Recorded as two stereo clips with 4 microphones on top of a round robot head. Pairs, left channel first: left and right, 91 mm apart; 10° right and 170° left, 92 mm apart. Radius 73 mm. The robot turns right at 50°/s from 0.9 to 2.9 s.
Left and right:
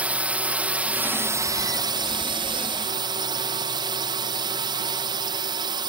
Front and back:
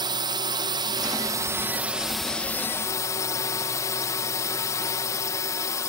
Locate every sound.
0.0 s a drone: 160° right; by 5.9 s 60° right